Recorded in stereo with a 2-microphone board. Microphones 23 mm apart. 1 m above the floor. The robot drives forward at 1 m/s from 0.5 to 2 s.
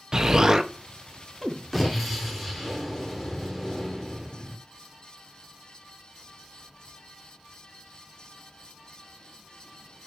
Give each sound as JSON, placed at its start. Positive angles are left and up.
{"t": 0.1, "sound": "an explosion", "side_deg": -30, "distance_m": 0.6}